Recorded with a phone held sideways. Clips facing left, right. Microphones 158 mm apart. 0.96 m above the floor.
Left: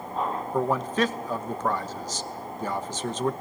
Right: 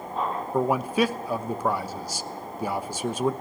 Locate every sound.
0.5 s a man speaking: 10° right (ahead or behind), 0.9 m